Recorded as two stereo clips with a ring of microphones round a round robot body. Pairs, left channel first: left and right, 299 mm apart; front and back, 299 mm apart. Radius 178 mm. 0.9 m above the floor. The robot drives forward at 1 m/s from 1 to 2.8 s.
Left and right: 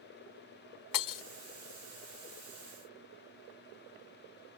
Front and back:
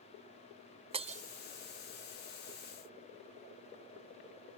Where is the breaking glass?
105° left; by 1.2 s 115° left.